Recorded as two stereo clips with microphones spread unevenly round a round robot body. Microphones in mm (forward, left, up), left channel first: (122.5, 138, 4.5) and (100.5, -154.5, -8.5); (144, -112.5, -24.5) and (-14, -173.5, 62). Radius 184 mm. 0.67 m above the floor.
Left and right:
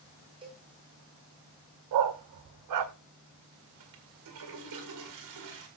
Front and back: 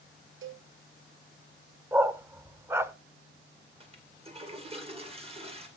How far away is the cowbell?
About 1.8 m.